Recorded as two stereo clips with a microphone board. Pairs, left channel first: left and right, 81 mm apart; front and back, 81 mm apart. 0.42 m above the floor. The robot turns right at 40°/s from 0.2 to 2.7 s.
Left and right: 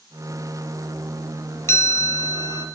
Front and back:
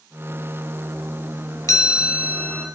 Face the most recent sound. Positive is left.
turn(degrees=80)